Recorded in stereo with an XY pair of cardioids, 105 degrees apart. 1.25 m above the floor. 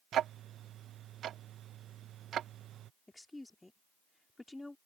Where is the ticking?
65° right.